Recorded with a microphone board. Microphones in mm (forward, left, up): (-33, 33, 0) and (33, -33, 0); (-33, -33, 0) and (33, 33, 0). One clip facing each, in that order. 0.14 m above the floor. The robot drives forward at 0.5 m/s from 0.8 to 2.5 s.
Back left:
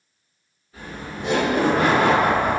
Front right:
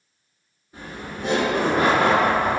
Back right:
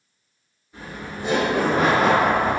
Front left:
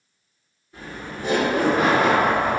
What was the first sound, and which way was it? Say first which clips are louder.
Laughter: back left 1 dB, even; 40° right.